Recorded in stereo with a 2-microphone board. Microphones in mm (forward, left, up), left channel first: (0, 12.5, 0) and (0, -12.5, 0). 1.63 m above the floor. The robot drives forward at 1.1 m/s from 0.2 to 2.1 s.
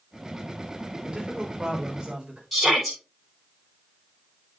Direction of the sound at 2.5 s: Centre (ahead or behind).